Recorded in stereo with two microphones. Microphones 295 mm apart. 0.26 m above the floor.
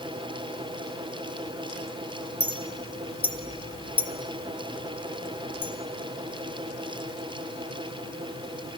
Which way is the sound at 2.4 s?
20° left (ahead or behind).